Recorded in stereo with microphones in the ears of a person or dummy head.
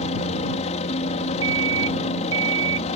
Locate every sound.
0.0 s a helicopter: 35° left (ahead or behind)
1.4 s an alarm clock: 20° right (ahead or behind)